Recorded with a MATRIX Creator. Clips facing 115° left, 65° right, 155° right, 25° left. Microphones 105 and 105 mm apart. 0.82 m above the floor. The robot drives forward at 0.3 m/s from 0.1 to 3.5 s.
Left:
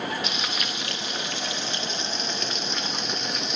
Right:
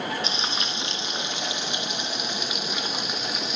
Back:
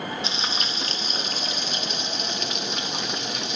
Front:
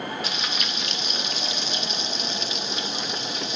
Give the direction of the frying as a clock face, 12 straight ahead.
4 o'clock.